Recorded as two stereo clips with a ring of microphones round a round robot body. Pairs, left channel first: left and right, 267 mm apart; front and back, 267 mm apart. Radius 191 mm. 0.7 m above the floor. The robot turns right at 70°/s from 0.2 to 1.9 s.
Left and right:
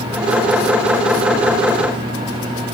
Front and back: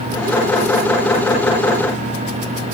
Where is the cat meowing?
I don't hear a cat meowing.